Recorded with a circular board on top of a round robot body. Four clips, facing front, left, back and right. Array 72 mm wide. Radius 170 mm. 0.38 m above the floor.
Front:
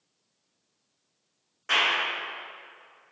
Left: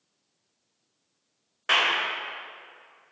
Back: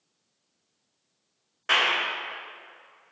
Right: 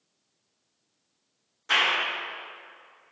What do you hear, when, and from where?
1.7 s a clap: 115° left, 2.5 m